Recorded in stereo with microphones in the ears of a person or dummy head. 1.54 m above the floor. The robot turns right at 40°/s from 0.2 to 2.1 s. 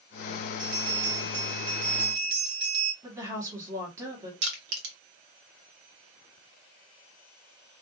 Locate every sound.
0.6 s a bell: 125° right, 1.8 m; by 2.9 s 65° right, 1.8 m
3.0 s a woman speaking: 15° right (ahead or behind), 1.1 m
4.4 s crushing: 70° right (ahead or behind), 0.9 m